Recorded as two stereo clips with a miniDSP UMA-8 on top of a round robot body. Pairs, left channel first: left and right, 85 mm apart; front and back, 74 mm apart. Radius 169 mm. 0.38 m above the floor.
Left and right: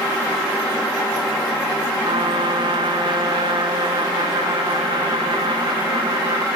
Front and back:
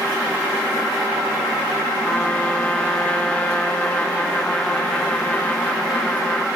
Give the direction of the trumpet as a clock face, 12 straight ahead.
2 o'clock.